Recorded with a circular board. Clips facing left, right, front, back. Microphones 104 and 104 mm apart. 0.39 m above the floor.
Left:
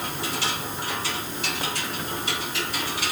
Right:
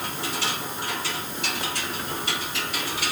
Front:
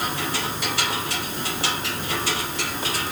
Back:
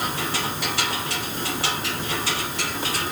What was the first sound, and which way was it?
Only background noise.